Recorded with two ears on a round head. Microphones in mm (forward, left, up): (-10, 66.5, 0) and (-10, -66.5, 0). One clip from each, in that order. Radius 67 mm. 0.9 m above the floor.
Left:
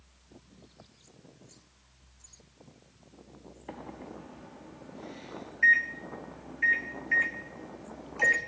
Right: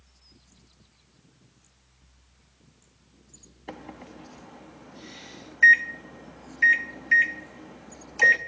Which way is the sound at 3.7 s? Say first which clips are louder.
Right 2 dB; 60° right (ahead or behind).